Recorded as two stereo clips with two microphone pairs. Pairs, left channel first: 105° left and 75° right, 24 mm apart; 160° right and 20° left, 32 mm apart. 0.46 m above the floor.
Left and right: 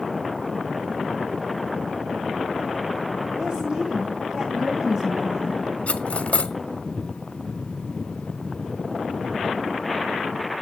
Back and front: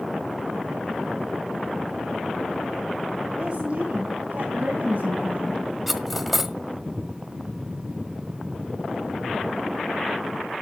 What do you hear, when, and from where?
3.4 s a woman speaking: 35° right, 2.5 m; by 5.7 s 10° right, 4 m
5.9 s cutlery clinking: 110° left, 1.3 m